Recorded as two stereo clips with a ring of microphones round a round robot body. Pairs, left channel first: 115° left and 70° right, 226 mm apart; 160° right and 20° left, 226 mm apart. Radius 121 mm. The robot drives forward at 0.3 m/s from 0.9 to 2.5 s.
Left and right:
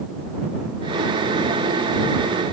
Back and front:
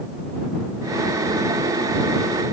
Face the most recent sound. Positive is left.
No sound to turn to.